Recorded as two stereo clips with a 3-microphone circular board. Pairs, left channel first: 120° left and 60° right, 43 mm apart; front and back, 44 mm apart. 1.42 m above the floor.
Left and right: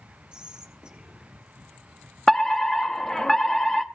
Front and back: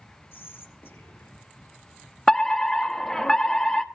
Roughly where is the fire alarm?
Ahead left.